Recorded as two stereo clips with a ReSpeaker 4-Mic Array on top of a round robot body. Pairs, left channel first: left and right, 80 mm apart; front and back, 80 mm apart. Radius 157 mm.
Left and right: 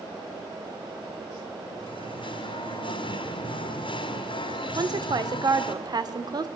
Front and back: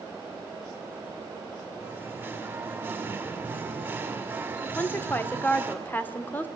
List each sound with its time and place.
1.8 s singing: 110° left, 2 m
4.8 s a woman speaking: 65° right, 2 m